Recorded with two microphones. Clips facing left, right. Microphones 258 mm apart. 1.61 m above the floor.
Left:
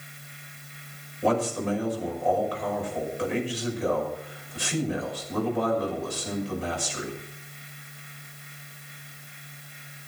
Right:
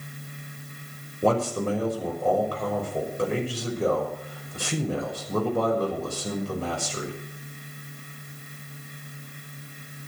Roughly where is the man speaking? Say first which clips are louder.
Right 2 dB; right.